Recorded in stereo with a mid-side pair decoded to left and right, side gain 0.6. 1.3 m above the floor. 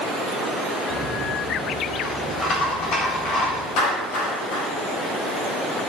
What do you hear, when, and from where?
0.9 s a rattle: 50° left, 4 m
3.8 s a clap: 65° left, 6 m